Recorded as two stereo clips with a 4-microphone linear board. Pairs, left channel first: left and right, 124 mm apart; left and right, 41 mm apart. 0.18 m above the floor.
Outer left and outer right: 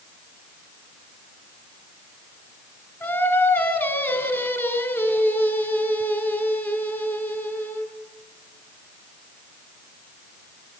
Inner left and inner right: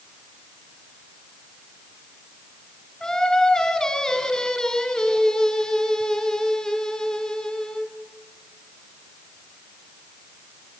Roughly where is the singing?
Centre.